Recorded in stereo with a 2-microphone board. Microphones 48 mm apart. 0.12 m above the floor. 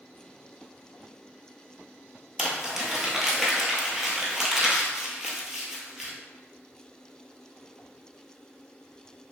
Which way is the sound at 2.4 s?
5° right (ahead or behind).